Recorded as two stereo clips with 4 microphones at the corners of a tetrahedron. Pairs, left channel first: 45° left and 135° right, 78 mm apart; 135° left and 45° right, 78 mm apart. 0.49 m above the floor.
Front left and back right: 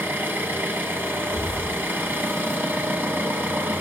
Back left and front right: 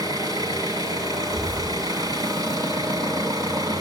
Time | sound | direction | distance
0.0 | an engine running | 75° right | 2.0 m
1.3 | a thud | 5° left | 5 m